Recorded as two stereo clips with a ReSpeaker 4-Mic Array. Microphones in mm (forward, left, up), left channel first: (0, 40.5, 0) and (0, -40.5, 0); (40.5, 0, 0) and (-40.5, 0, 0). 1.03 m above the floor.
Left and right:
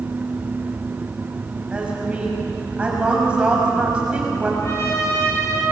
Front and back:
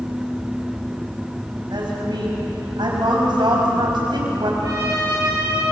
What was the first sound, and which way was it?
A woman speaking, 165° right.